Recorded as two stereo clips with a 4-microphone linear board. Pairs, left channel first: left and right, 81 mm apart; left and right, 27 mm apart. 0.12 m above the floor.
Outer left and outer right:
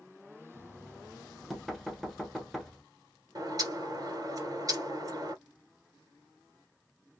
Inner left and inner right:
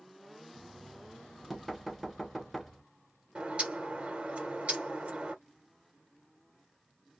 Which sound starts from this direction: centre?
Knocking, at 0.5 s.